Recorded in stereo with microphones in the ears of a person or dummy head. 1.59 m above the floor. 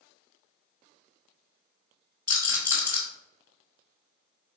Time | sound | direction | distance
2.3 | a rattle | 15° right (ahead or behind) | 1.1 m